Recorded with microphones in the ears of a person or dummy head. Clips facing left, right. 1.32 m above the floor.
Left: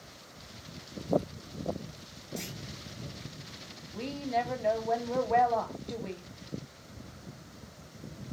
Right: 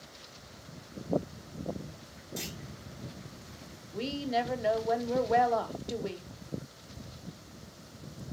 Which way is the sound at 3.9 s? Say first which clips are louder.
Right 1 dB; 15° right (ahead or behind).